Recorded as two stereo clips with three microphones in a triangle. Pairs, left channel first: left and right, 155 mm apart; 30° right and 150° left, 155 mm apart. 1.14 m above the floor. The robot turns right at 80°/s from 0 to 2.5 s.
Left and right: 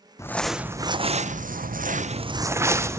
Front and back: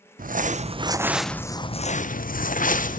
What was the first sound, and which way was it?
Crumpling, 155° left.